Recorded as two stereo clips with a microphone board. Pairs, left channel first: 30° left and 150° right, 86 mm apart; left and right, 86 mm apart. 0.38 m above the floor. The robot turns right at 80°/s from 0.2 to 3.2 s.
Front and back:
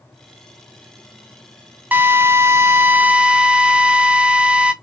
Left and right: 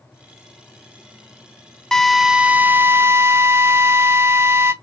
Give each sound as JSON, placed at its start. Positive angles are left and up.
{"t": 1.9, "sound": "a drill", "azimuth_deg": 165, "distance_m": 0.6}